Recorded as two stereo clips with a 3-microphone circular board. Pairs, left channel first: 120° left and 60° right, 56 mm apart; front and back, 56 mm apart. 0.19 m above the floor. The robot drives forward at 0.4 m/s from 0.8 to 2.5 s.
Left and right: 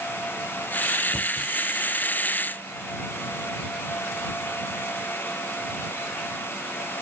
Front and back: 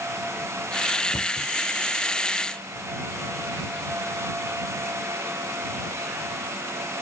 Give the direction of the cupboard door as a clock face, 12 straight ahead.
12 o'clock.